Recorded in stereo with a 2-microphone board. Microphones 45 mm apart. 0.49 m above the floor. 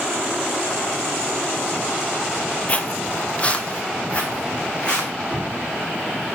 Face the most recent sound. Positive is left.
turn(degrees=0)  # may be behind; listen again after turning